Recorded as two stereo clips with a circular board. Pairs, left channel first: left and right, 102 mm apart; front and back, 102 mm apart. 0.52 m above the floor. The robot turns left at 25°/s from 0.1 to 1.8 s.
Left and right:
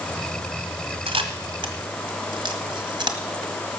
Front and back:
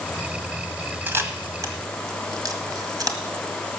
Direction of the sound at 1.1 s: 110° right.